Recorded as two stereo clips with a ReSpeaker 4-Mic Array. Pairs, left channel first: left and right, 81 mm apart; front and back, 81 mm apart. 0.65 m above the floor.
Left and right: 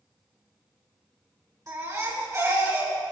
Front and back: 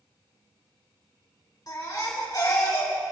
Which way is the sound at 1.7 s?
40° right.